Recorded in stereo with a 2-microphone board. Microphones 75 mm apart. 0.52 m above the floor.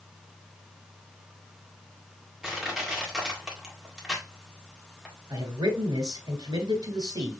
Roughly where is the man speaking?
Right.